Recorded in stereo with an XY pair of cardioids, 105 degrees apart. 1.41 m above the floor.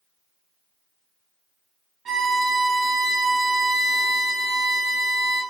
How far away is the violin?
About 1.9 m.